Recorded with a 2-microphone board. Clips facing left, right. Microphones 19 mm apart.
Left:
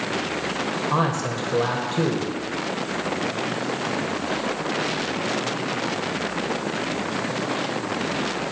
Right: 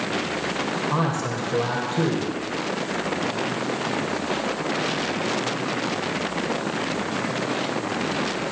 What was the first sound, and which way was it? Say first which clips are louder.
A man speaking: left 1 dB; 20° left (ahead or behind).